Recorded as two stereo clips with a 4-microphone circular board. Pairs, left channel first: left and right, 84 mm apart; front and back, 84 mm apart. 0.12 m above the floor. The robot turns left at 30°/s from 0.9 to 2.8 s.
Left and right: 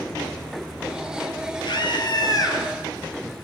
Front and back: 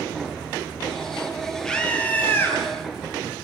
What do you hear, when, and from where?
1.6 s a scream: 85° left, 3.5 m; by 2.6 s 55° left, 3.5 m